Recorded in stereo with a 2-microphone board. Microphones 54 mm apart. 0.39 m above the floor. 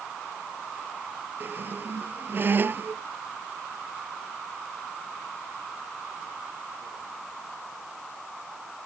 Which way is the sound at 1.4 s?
40° right (ahead or behind).